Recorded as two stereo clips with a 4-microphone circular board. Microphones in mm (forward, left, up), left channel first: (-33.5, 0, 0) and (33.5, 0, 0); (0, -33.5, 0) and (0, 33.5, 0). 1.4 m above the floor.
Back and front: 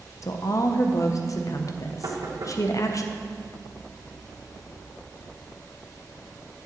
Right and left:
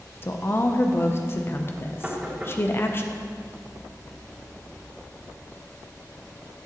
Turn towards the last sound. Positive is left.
turn(degrees=15)